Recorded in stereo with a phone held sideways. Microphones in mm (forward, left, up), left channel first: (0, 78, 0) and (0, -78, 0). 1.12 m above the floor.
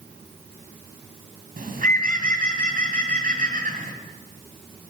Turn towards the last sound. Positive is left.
turn(degrees=-70)  # may be behind; listen again after turning